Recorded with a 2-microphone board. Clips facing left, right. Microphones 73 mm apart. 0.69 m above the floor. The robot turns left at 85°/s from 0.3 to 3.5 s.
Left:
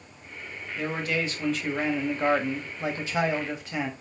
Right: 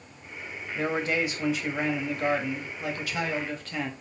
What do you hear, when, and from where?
0.8 s a man speaking: 105° right, 1.3 m; by 3.9 s 25° left, 1.3 m